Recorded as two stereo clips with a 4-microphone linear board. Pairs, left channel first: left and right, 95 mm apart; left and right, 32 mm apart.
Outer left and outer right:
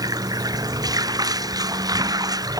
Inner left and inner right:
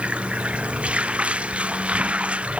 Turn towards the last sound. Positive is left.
turn(degrees=-40)  # may be behind; listen again after turning